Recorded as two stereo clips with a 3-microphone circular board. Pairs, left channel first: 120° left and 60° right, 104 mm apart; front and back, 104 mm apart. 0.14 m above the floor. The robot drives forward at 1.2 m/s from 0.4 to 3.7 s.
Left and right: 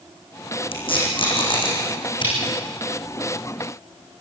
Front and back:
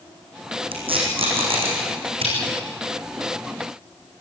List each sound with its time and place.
0.7 s tape being pulled: 150° left, 5.5 m; by 2.3 s 160° left, 7.5 m